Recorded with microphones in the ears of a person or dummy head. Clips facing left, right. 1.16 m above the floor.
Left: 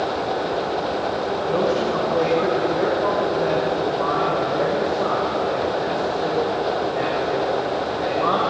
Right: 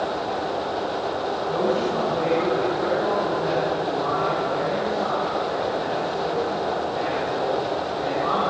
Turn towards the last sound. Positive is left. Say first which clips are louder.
# left 2 dB
turn(degrees=85)